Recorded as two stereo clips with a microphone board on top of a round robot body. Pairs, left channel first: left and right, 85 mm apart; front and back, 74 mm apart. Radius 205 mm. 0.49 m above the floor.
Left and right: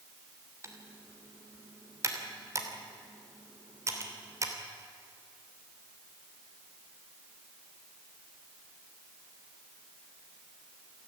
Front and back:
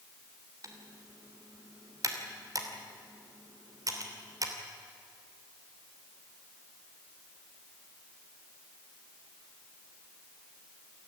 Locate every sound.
0.6 s typing on a keyboard: 140° right, 3 m